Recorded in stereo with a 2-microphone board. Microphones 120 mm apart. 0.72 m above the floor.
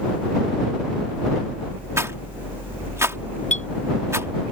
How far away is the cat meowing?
No cat meowing in this recording.